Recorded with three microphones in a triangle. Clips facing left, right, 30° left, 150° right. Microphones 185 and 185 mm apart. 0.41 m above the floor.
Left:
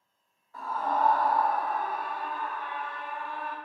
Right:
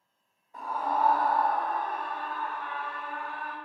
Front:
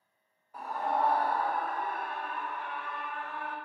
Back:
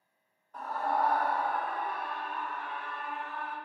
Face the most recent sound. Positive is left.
turn(degrees=25)